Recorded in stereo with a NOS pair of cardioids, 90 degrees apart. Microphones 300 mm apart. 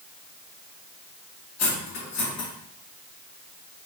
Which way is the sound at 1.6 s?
70° left.